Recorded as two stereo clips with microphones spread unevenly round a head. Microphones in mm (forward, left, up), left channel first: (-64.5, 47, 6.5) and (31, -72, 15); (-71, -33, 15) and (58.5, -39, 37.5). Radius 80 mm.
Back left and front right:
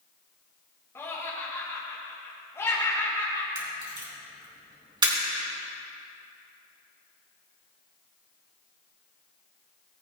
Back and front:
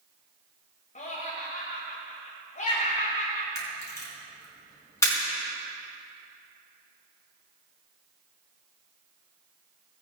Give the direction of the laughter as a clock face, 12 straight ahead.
5 o'clock.